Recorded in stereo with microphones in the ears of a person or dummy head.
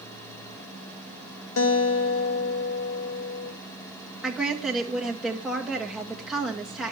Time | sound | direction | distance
1.6 | a guitar | 75° left (ahead or behind) | 1.9 m
4.2 | a woman speaking | 5° right (ahead or behind) | 2.0 m